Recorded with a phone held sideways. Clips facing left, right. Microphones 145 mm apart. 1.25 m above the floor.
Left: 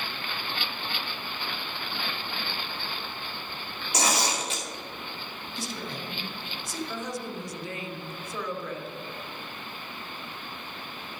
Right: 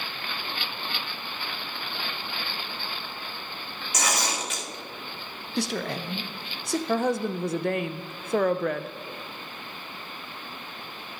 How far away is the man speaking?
About 0.7 m.